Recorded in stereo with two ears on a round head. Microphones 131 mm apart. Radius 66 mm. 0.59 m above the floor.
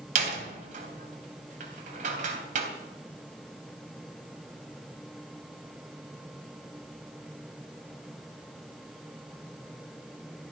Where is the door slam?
55° right (ahead or behind), 3.5 m.